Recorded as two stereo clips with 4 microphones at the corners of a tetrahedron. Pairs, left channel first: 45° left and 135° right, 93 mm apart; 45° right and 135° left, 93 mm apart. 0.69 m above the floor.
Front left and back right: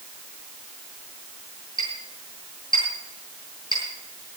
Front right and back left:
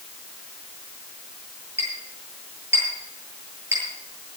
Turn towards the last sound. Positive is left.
turn(degrees=75)